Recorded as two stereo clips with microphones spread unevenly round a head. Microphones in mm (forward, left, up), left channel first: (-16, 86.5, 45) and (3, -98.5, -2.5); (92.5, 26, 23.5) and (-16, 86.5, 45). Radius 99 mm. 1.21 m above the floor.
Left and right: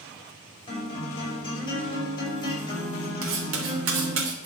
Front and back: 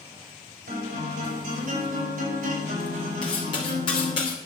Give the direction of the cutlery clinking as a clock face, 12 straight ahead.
3 o'clock.